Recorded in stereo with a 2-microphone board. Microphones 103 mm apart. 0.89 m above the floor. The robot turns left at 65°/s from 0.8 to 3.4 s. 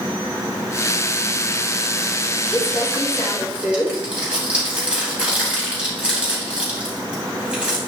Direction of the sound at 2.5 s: 70° right (ahead or behind).